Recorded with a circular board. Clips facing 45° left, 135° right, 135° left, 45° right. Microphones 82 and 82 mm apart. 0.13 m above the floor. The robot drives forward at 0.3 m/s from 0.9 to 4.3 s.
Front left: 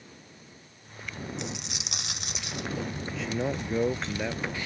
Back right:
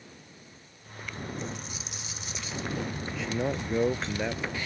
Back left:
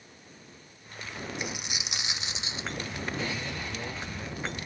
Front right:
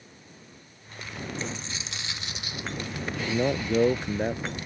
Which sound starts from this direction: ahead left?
A dropped coin, at 1.4 s.